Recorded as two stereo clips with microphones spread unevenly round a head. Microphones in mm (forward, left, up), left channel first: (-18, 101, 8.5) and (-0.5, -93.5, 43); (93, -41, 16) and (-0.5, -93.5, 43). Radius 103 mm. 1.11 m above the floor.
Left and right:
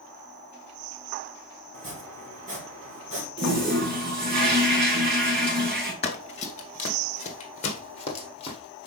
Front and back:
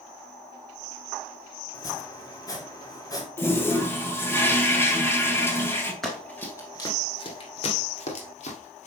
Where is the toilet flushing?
45° right, 1.8 m.